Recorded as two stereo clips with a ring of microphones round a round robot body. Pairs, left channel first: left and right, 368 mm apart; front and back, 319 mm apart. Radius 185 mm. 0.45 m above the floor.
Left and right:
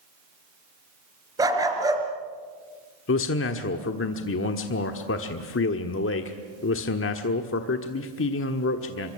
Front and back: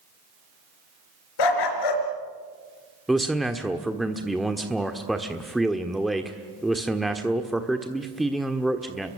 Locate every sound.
1.4 s a dog barking: 10° right, 3.5 m
3.1 s a man speaking: 90° left, 1.3 m